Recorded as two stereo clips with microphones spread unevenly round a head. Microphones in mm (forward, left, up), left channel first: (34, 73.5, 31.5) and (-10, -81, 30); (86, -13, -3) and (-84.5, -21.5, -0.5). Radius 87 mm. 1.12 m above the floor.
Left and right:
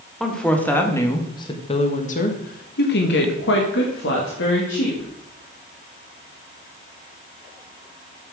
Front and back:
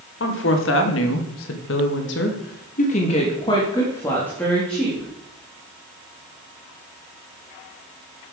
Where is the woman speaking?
15° right, 1.8 m; by 5.1 s 90° left, 2 m.